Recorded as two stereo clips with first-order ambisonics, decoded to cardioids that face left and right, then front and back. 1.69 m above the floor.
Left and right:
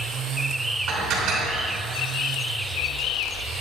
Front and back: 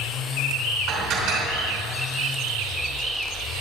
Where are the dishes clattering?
135° right, 3.5 m.